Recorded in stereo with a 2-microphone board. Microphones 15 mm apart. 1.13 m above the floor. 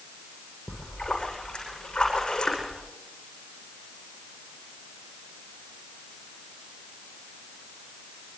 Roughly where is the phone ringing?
No phone ringing in this recording.